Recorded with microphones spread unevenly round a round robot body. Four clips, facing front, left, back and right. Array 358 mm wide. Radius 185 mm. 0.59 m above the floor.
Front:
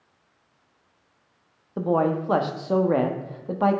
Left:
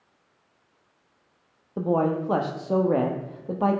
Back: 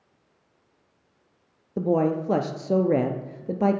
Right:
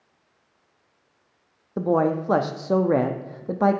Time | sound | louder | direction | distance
1.8 | a man speaking | right 2 dB, even | 105° right | 0.6 m